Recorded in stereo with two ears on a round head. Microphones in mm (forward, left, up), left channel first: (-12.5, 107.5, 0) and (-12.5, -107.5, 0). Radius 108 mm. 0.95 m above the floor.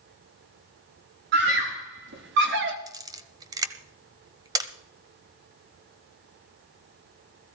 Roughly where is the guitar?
No guitar in this recording.